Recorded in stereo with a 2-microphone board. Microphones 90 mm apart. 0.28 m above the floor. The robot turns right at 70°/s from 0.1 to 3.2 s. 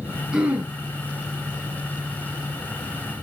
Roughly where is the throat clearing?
Centre.